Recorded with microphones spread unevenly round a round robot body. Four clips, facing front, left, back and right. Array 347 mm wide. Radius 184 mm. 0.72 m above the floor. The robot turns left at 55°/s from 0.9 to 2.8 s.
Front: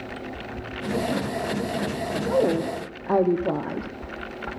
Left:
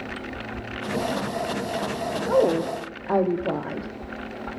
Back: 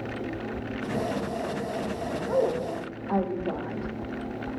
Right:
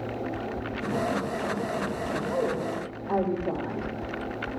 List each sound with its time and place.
2.3 s a woman speaking: 45° left, 1.1 m; by 4.5 s 15° left, 1.1 m